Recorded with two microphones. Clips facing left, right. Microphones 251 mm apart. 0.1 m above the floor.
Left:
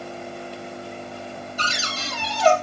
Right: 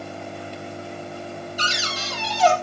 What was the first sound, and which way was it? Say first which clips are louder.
A cupboard door: right 1 dB; 60° left (ahead or behind).